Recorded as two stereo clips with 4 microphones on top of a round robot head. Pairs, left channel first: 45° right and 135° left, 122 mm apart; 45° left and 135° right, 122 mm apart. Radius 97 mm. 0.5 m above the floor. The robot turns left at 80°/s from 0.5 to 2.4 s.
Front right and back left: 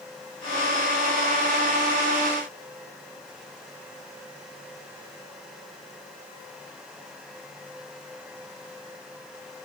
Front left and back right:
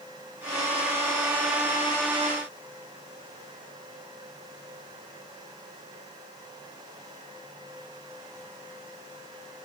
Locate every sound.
Only background noise.